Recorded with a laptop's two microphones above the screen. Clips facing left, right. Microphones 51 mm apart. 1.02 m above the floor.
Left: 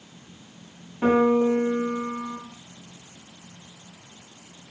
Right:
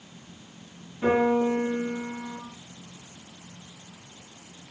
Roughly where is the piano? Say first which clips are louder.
Left 3 dB; left.